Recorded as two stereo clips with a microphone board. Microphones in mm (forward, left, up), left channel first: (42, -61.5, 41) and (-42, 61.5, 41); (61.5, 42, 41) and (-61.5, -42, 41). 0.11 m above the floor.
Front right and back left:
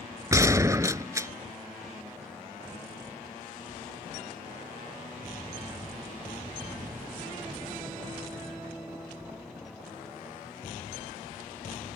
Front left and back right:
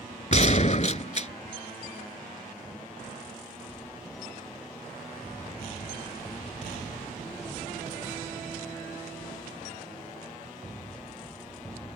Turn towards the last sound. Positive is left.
turn(degrees=60)